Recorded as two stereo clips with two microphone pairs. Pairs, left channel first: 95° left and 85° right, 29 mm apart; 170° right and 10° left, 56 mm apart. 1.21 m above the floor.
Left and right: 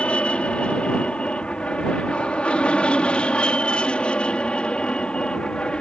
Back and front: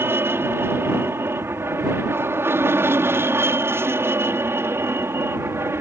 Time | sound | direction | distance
0.0 | an aircraft | 50° left | ?